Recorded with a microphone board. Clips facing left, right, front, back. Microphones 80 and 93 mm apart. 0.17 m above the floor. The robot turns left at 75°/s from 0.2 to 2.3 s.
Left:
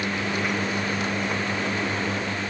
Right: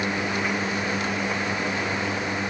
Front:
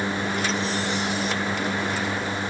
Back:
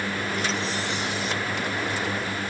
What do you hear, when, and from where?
Only background noise.